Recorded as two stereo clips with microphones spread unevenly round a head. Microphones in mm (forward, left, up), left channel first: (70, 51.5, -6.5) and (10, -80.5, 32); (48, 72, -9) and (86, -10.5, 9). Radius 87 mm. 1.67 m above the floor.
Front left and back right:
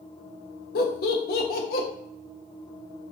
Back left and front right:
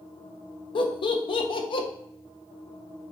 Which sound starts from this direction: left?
Laughter, at 0.8 s.